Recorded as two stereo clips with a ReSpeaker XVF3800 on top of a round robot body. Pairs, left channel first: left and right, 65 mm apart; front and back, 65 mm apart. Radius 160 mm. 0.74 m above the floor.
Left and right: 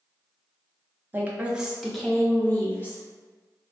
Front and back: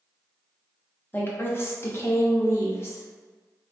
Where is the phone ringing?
I don't hear a phone ringing.